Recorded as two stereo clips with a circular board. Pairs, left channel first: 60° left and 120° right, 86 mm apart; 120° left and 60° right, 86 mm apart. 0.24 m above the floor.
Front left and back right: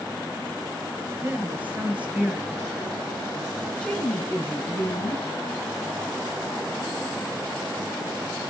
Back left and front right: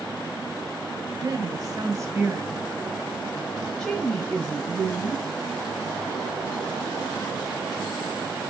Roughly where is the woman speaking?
Ahead right.